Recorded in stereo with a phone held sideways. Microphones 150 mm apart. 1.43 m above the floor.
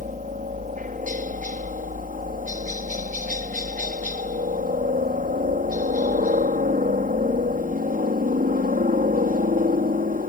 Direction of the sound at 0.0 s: 60° right (ahead or behind).